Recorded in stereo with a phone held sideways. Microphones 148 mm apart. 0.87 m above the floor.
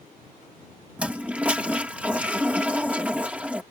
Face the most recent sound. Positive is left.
turn(degrees=-10)  # may be behind; listen again after turning